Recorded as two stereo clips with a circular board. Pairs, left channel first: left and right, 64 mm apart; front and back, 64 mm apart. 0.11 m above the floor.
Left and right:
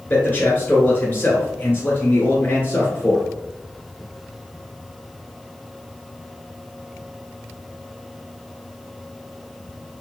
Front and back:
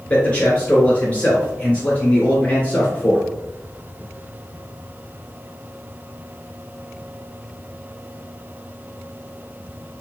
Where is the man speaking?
55° left, 1.9 m.